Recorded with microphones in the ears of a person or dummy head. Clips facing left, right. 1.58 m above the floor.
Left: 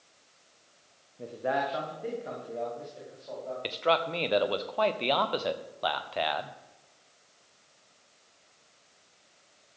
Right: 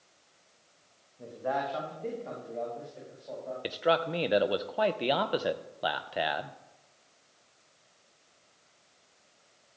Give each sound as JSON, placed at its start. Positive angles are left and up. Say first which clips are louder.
{"t": 1.2, "sound": "a man speaking", "louder": "left 2 dB", "side_deg": 45, "distance_m": 1.3}
{"t": 3.6, "sound": "a man speaking", "louder": "even", "side_deg": -15, "distance_m": 0.5}